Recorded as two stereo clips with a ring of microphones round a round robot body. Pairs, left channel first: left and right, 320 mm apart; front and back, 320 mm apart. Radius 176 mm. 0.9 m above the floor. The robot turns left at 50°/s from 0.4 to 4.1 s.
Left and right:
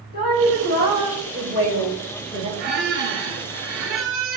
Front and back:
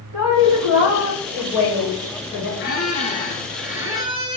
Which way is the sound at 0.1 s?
140° left.